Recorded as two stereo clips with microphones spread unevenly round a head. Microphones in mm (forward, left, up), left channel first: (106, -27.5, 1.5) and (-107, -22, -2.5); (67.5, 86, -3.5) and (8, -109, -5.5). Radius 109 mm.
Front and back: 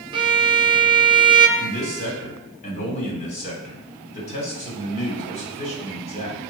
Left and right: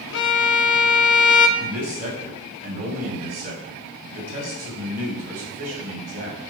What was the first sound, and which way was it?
A violin, 110° left.